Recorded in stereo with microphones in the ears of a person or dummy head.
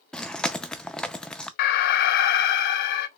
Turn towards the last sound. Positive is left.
turn(degrees=60)  # may be behind; listen again after turning